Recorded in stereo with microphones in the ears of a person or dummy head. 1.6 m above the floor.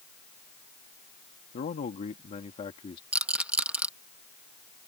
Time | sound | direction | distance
1.5 | a man speaking | 45° left (ahead or behind) | ?
3.1 | a rattle | 5° right (ahead or behind) | ?